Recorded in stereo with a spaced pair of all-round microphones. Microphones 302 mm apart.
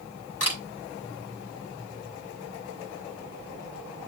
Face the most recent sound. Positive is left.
turn(degrees=50)  # may be behind; listen again after turning